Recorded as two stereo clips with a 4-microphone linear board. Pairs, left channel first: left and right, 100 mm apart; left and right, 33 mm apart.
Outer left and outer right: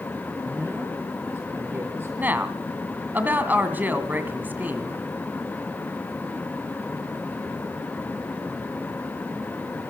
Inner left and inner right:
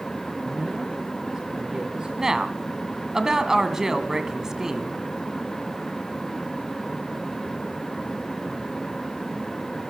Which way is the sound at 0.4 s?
5° right (ahead or behind).